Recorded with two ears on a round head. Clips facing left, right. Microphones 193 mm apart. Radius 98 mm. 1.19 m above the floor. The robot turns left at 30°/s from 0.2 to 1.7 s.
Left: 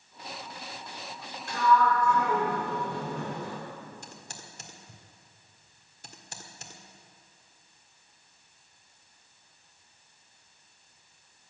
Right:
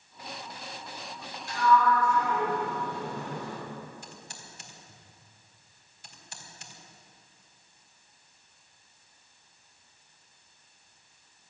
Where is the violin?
No violin in this recording.